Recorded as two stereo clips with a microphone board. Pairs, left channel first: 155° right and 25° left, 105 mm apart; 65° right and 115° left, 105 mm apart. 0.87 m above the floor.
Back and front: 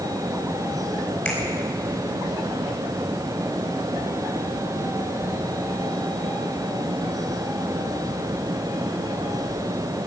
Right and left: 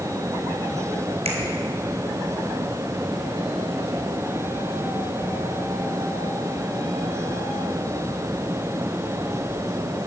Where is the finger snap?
125° left, 4 m.